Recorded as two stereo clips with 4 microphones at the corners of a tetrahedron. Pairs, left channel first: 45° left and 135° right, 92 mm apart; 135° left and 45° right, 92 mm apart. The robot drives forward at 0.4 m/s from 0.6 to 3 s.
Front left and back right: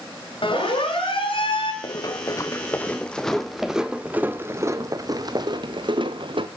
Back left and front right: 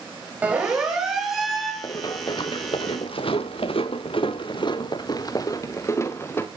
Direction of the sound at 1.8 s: 85° left.